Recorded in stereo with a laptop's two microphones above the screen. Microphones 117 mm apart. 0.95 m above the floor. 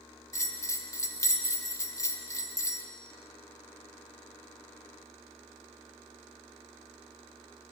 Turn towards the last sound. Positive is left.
turn(degrees=25)  # may be behind; listen again after turning